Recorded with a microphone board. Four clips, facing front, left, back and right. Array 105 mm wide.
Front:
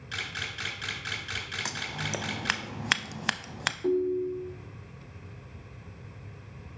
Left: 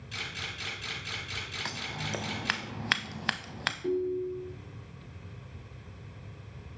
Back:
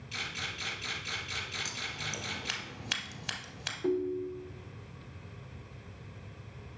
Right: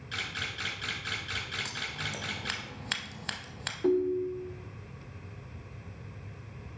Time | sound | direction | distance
0.1 | a camera shutter | 30° right | 3.5 m
1.6 | scissors | 35° left | 0.5 m
3.8 | a ringtone | 90° right | 0.8 m